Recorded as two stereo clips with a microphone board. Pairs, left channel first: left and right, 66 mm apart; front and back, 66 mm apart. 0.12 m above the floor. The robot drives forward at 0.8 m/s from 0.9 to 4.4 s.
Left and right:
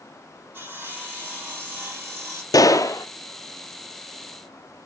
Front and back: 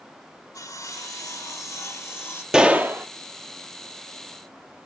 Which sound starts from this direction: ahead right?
Sawing, at 0.5 s.